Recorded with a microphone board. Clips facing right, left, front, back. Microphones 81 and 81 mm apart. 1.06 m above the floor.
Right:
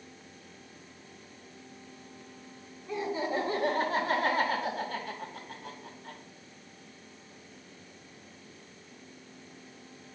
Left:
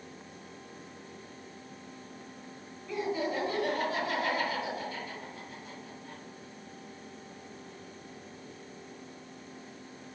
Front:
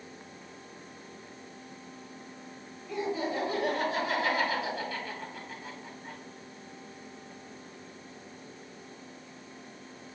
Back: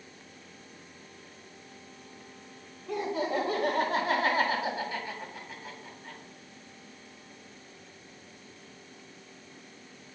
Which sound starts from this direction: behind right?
Laughter, at 2.9 s.